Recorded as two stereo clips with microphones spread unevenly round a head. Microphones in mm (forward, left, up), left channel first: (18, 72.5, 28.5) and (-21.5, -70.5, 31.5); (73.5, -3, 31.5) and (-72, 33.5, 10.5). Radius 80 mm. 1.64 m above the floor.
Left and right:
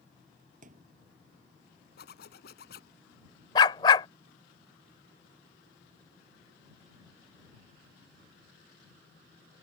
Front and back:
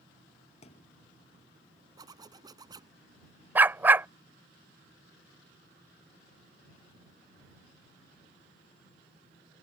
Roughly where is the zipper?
Left.